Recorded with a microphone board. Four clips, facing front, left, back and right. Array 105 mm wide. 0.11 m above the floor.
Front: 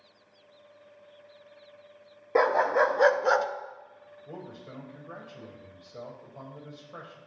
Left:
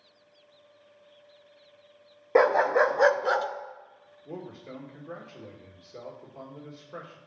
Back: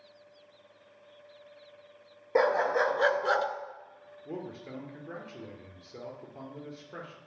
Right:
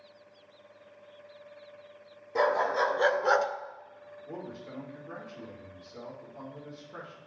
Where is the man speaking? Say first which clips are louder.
Left 1 dB, back 3 dB; 155° left, 2 m.